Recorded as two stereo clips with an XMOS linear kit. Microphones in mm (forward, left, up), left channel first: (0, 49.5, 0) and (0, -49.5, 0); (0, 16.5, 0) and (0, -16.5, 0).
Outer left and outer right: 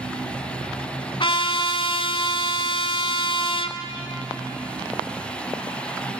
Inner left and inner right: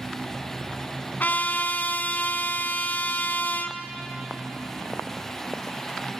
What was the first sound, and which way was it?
A trumpet, 60° left (ahead or behind).